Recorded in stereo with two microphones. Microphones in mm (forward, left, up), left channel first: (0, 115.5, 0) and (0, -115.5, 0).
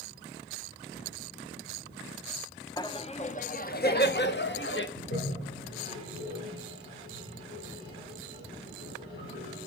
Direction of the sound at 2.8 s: 15° left (ahead or behind).